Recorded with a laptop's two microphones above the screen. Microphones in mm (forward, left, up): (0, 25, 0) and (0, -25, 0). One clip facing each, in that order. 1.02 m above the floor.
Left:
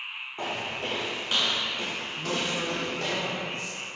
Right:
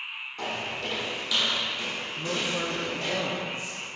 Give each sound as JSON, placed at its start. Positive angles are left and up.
{"t": 0.4, "sound": "footsteps", "side_deg": 25, "distance_m": 2.0}
{"t": 2.2, "sound": "a man speaking", "side_deg": -15, "distance_m": 0.6}